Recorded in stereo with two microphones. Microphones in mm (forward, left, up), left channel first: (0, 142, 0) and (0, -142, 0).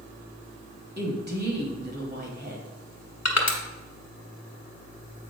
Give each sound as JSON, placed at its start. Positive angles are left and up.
{"t": 1.0, "sound": "a woman speaking", "side_deg": -35, "distance_m": 1.3}
{"t": 3.2, "sound": "crushing", "side_deg": 60, "distance_m": 1.3}